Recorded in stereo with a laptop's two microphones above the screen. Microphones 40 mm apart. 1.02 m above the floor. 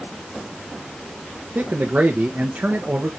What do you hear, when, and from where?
1.6 s a man speaking: 45° right (ahead or behind), 0.7 m